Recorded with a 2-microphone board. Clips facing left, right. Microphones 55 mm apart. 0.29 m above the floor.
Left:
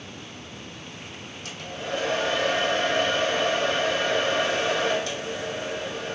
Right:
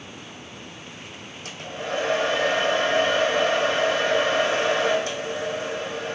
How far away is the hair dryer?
About 2.5 m.